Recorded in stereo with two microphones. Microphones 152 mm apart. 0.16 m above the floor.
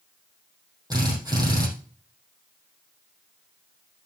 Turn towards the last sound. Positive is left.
turn(degrees=-25)  # may be behind; listen again after turning